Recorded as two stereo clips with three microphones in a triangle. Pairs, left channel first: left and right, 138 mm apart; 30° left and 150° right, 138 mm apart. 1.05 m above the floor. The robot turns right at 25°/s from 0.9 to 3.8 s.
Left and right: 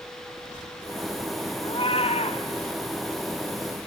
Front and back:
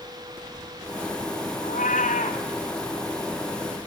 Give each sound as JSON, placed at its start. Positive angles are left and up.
{"t": 1.6, "sound": "a cat meowing", "azimuth_deg": 35, "distance_m": 1.9}